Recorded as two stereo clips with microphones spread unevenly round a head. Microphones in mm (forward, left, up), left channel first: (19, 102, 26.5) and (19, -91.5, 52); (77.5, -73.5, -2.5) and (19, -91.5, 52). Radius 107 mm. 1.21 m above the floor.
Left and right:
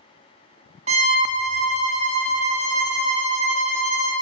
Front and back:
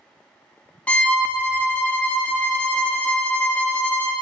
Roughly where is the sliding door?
No sliding door in this recording.